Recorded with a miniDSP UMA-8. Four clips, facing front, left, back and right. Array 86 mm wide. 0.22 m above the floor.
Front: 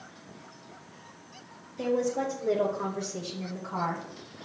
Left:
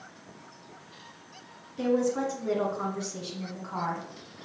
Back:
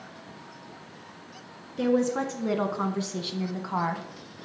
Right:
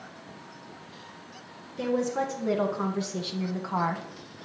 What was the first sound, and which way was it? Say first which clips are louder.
A woman speaking: left 1 dB, back 3 dB; straight behind.